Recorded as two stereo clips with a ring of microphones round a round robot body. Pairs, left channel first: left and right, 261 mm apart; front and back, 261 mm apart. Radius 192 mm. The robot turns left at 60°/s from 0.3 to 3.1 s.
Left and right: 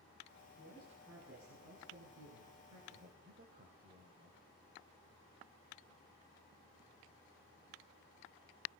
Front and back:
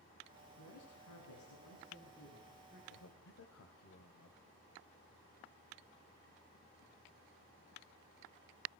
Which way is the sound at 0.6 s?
30° left.